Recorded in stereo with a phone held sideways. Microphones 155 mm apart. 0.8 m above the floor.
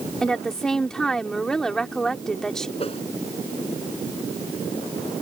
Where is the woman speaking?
5° left (ahead or behind).